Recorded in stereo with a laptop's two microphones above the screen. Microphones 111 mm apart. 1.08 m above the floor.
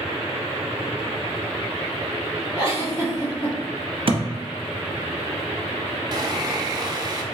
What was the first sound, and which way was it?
A giggle, 55° left (ahead or behind).